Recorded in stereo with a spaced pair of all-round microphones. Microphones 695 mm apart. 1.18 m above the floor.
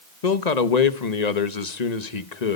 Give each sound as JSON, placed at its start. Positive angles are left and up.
{"t": 0.2, "sound": "a man speaking", "side_deg": 70, "distance_m": 1.2}